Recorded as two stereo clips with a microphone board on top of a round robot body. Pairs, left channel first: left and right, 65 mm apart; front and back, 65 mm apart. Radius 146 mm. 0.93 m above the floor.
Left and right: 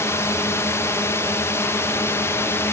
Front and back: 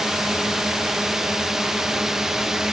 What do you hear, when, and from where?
0.0 s a drone: 95° left; by 2.7 s 100° left